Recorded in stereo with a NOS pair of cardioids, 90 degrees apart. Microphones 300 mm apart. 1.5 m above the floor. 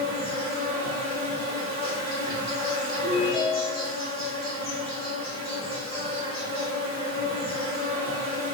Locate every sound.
0.0 s an insect: 15° left, 1.5 m
3.0 s a ringtone: 10° right, 1.9 m